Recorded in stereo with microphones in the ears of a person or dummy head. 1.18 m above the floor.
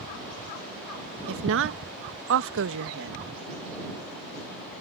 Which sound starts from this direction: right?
A woman speaking, at 1.3 s.